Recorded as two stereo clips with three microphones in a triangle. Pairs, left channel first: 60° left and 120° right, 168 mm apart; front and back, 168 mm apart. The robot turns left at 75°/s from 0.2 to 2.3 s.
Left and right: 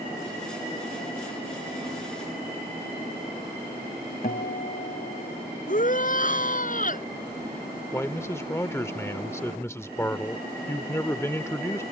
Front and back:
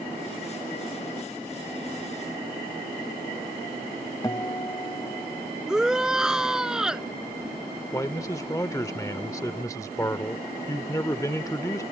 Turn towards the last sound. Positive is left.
turn(degrees=20)